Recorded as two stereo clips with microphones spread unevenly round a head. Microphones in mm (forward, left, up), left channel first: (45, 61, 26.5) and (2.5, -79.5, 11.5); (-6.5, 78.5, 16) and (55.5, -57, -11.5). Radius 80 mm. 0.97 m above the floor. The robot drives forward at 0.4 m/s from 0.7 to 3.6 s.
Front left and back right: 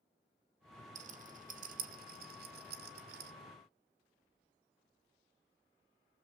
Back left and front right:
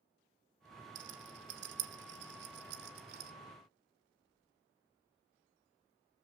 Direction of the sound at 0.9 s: 70° right.